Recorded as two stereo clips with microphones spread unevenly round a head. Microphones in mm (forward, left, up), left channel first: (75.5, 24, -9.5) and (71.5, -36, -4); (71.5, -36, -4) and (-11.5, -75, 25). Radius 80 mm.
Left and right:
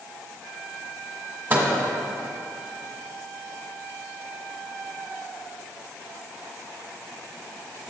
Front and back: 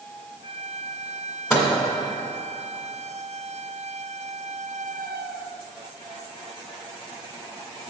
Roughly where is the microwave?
Ahead right.